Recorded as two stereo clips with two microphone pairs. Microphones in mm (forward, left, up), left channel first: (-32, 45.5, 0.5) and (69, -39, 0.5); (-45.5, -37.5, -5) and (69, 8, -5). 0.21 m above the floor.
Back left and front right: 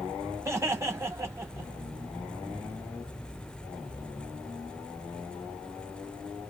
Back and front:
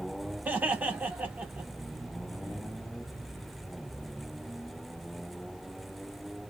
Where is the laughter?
25° right, 1.5 m.